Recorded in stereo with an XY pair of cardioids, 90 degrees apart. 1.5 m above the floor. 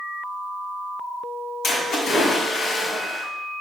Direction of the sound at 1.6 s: 65° left.